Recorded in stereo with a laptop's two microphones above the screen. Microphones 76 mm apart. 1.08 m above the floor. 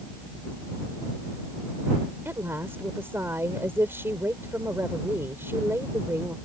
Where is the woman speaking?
30° right (ahead or behind).